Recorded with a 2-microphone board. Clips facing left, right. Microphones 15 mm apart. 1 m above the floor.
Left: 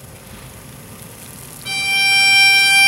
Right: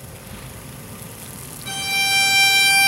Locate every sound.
1.6 s a violin: 50° left (ahead or behind), 1.2 m